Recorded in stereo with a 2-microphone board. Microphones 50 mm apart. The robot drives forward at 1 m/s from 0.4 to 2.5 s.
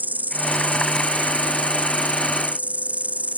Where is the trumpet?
No trumpet in this recording.